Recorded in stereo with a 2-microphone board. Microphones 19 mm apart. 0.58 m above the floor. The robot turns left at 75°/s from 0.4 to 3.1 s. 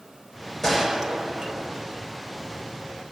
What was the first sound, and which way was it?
A gunshot, 25° left.